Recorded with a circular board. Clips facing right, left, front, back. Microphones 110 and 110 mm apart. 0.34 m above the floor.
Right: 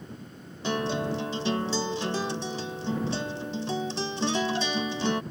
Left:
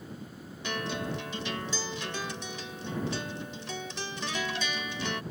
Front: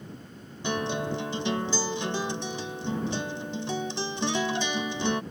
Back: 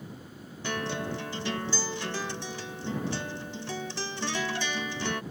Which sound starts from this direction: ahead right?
A guitar, at 0.6 s.